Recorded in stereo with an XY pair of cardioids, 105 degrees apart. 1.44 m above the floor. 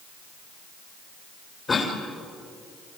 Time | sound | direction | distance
1.7 | a cough | 35° left | 3 m